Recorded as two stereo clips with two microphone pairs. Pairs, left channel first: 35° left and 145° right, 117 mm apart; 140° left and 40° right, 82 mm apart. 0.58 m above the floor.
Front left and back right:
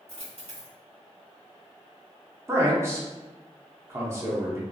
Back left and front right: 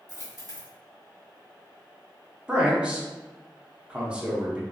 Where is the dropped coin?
170° right, 1.6 m.